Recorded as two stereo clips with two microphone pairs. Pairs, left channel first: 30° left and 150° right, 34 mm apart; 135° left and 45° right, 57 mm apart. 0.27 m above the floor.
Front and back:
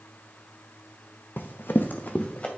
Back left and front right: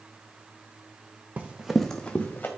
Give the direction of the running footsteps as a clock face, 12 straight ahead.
12 o'clock.